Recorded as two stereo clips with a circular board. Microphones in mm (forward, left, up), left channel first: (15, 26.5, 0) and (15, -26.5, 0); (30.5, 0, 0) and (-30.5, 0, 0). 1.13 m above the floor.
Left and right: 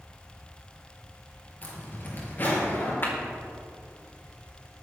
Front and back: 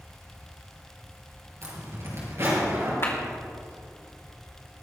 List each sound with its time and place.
1.6 s a zipper: 140° left, 5 m
3.0 s a clap: 45° left, 2.5 m